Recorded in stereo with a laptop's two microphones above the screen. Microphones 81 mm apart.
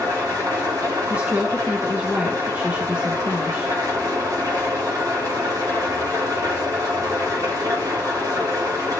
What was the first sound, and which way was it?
An engine running, 45° right (ahead or behind).